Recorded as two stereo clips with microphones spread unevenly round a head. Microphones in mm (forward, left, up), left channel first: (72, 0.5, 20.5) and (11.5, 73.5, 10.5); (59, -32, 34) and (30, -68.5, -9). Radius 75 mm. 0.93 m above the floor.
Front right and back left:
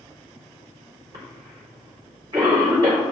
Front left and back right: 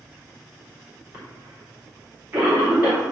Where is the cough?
170° right, 3.5 m.